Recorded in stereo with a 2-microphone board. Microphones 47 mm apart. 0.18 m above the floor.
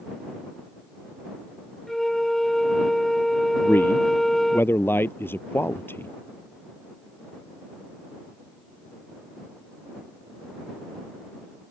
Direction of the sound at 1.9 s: 10° left (ahead or behind).